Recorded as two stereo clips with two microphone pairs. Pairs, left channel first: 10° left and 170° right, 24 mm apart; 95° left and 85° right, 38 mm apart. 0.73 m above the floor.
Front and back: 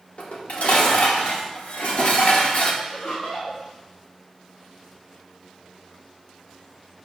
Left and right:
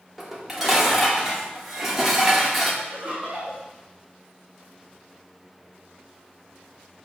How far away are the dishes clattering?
About 1.1 m.